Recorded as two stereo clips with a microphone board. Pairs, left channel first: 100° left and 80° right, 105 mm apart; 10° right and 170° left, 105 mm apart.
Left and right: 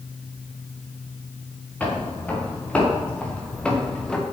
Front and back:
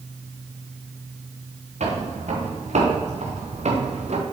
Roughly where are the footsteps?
Behind.